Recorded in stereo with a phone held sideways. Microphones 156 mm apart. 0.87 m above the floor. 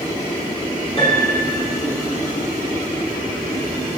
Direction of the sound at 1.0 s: 35° left (ahead or behind).